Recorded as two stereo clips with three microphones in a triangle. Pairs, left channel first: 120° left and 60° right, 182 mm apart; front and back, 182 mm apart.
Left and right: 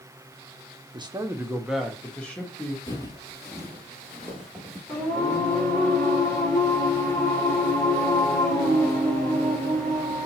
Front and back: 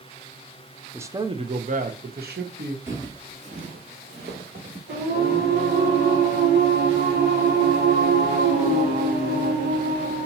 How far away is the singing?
About 2.5 m.